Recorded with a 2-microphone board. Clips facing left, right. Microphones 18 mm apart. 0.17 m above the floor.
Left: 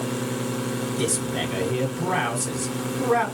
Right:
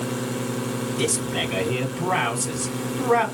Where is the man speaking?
20° right (ahead or behind), 1.0 m.